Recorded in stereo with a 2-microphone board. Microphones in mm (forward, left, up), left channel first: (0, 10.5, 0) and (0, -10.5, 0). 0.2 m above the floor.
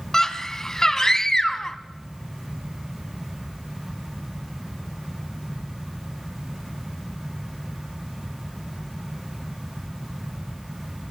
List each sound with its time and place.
0.1 s a scream: 20° left (ahead or behind), 1.3 m